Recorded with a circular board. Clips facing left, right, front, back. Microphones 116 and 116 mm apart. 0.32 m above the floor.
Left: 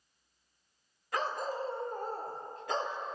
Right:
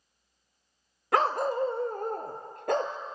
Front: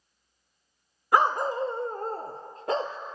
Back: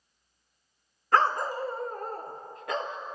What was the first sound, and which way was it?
A dog barking, 75° right.